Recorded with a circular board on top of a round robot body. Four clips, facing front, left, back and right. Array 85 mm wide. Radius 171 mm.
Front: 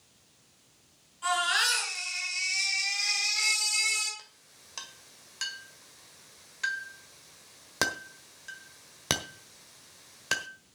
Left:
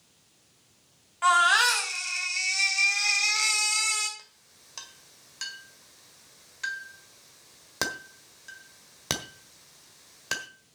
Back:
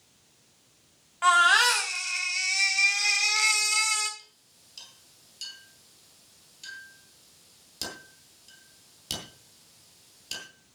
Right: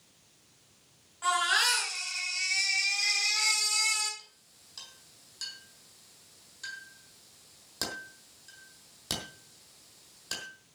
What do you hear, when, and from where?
1.2 s a baby crying: 145° left, 4 m
4.2 s a clink: 30° left, 1.5 m